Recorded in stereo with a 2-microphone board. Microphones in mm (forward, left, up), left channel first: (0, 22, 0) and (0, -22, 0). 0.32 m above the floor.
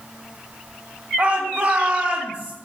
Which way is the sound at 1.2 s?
30° right (ahead or behind).